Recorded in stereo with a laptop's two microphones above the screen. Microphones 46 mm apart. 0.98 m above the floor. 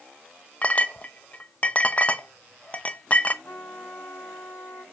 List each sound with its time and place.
0.6 s a clink: 30° left (ahead or behind), 0.6 m
3.4 s a trumpet: 80° left, 3 m